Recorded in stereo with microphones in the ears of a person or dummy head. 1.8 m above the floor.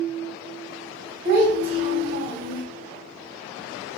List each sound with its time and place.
1.2 s a child speaking: 35° right (ahead or behind), 0.8 m